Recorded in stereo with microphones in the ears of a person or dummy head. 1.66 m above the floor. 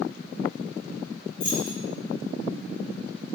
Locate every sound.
1.4 s keys jangling: 60° left (ahead or behind), 1.2 m